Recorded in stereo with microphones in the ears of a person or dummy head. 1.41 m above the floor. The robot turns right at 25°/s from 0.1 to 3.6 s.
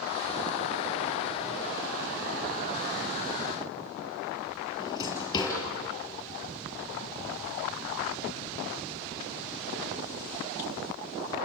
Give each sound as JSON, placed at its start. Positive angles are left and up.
{"t": 4.8, "sound": "a drawer", "side_deg": 20, "distance_m": 6.0}